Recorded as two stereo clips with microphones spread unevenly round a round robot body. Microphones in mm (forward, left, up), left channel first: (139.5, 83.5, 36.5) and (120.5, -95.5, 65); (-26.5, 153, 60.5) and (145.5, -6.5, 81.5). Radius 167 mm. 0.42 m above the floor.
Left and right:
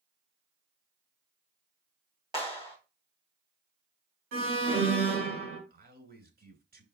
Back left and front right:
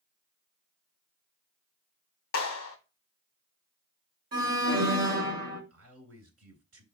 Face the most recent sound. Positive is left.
turn(degrees=-65)